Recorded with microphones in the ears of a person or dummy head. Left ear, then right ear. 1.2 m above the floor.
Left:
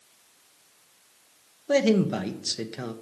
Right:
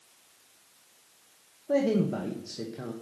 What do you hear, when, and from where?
1.7 s a man speaking: 65° left (ahead or behind), 1.3 m